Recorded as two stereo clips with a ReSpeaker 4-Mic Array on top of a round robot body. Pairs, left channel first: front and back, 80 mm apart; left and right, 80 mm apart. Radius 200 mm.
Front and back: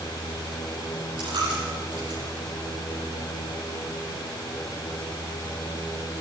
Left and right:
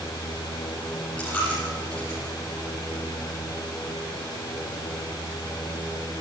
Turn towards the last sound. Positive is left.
turn(degrees=165)